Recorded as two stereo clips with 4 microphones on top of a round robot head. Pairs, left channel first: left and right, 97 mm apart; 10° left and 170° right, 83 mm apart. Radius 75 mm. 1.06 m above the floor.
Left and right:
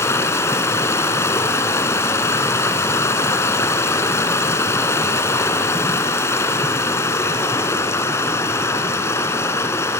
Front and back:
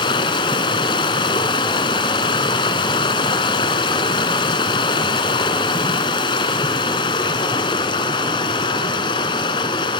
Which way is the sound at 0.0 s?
30° left.